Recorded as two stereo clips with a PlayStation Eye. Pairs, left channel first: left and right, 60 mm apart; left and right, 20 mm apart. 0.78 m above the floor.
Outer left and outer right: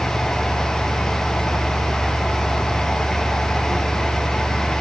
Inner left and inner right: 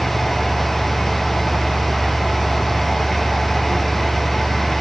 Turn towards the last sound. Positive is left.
No sound to turn to.